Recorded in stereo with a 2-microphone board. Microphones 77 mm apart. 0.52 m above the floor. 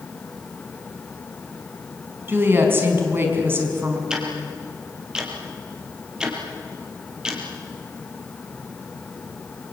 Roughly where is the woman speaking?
Right.